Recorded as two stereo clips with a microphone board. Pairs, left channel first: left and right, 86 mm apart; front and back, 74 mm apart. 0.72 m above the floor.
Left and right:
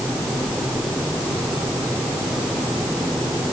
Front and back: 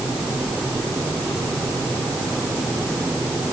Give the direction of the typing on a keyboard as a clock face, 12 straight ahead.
I don't hear typing on a keyboard.